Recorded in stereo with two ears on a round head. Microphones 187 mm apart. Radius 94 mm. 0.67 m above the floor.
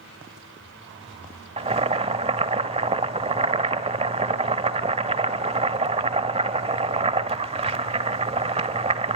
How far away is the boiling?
About 1.0 m.